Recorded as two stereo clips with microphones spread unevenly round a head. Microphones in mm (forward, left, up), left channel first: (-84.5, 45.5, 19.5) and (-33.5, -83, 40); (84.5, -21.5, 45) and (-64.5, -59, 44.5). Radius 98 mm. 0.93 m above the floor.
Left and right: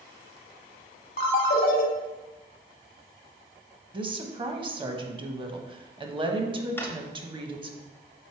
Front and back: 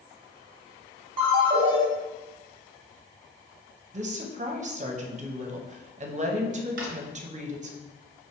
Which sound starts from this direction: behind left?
A ringtone, at 1.2 s.